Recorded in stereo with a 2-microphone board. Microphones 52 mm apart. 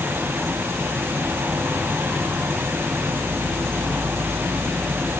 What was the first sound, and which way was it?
An insect, 50° right (ahead or behind).